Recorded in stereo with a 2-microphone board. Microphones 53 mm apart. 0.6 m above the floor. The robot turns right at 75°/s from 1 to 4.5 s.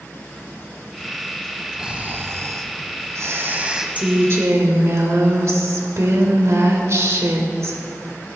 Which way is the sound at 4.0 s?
150° right.